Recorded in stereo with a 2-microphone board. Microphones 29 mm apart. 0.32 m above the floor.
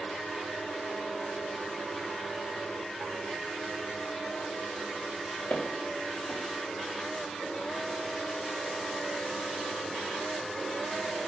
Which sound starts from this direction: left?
Footsteps, at 5.5 s.